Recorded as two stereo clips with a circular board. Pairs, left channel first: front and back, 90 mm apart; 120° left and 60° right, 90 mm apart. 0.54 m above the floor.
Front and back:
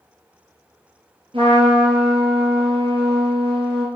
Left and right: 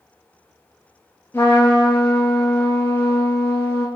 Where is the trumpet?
175° right, 3 m.